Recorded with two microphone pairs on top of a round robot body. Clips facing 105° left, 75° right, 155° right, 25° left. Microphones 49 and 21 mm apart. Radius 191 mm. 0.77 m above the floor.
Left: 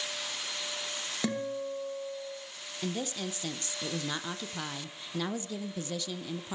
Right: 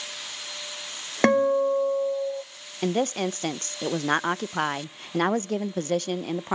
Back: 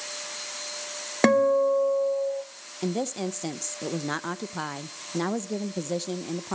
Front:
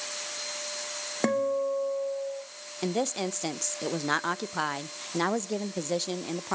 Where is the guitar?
110° right, 1.7 m.